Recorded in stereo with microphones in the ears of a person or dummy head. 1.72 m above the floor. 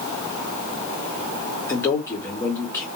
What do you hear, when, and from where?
1.7 s a man speaking: 15° left (ahead or behind), 0.6 m